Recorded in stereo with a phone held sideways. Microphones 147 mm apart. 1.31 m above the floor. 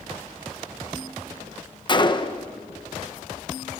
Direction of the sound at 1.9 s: 30° left (ahead or behind).